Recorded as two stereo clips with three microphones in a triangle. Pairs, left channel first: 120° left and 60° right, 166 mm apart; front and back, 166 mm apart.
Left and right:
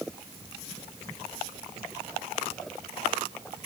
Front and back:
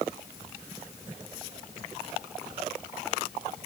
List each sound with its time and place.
Only background noise.